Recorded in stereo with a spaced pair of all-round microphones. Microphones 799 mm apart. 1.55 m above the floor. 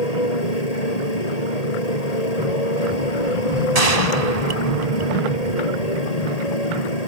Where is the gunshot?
50° right (ahead or behind).